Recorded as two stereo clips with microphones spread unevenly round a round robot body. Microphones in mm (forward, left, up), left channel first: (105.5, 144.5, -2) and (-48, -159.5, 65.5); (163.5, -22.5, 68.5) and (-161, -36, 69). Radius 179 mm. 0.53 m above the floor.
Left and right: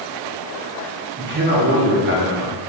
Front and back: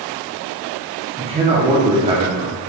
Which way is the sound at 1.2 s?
140° right.